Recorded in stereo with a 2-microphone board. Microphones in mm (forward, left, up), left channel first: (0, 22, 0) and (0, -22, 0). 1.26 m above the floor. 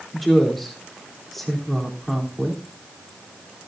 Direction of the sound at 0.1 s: 5° left (ahead or behind).